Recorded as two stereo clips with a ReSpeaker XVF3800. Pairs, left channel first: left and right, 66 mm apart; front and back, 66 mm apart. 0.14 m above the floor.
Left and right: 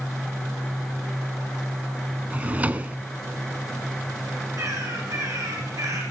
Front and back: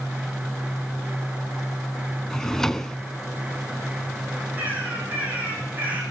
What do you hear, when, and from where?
2.3 s a drawer: 70° right, 0.5 m
4.6 s a bird: 115° right, 6 m